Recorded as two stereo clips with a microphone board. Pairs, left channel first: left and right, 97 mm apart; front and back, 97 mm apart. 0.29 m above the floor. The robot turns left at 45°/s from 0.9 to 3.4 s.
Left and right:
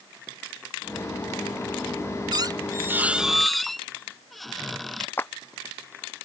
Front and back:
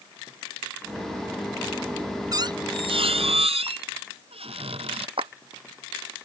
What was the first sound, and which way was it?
A squeak, 130° right.